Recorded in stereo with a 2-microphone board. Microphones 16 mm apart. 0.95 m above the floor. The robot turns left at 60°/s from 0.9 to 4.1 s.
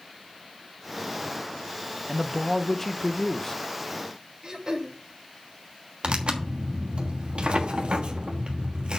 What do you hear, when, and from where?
2.1 s a man speaking: 165° right, 0.6 m; by 3.6 s 105° left, 0.6 m
4.4 s throat clearing: 45° right (ahead or behind), 1.6 m
6.0 s tearing paper: 75° right (ahead or behind), 1.3 m